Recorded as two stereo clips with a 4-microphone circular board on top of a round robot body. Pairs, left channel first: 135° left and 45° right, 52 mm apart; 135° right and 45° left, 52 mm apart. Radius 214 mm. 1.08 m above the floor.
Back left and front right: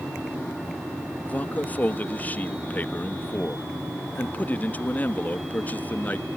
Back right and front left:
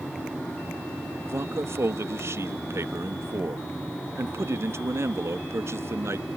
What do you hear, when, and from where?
1.3 s a man speaking: 75° left